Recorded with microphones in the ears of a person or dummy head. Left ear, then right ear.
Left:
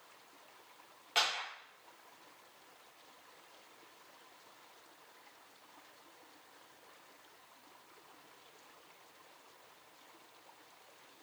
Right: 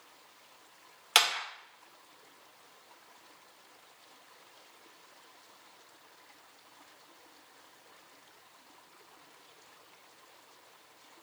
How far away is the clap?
About 0.8 m.